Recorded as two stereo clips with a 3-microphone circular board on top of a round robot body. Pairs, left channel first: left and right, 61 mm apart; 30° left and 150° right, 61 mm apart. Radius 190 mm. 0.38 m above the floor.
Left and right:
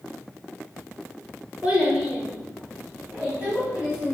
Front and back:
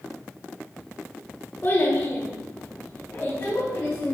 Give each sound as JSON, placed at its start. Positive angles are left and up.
{"t": 1.6, "sound": "a child speaking", "azimuth_deg": -20, "distance_m": 1.5}